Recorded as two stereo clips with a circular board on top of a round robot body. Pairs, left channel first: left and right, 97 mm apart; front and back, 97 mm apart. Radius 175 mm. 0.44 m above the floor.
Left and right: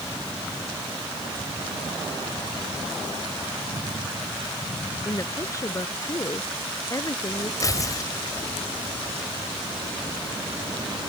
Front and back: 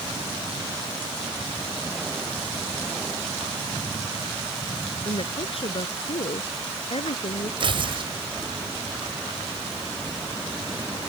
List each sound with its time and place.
5.0 s a woman speaking: 30° left
7.6 s tearing paper: 145° left